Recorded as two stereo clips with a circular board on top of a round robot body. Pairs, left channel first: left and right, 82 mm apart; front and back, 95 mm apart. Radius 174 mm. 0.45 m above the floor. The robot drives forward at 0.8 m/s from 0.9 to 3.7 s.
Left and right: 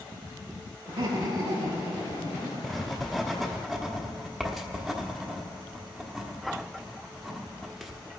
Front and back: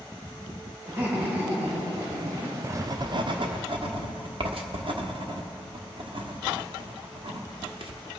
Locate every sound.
0.9 s laughter: 115° right, 4.5 m; by 2.5 s 125° right, 5 m
2.6 s writing: straight behind, 0.7 m